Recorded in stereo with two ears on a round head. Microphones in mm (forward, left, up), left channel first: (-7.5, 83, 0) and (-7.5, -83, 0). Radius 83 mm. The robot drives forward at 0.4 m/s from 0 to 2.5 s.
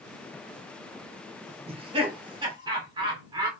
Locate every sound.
1.7 s laughter: 30° right (ahead or behind), 1.0 m; by 3.5 s 25° right (ahead or behind), 1.2 m